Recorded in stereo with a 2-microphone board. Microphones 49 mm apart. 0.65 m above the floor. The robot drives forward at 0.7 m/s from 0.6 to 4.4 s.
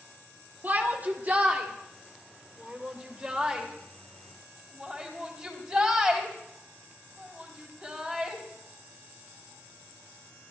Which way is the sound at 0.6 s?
35° right (ahead or behind).